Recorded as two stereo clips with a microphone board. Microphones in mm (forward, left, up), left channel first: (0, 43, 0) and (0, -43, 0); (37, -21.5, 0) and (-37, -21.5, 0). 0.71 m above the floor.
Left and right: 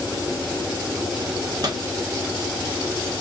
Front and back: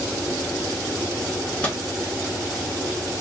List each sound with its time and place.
1.6 s a microwave: 70° right, 1.1 m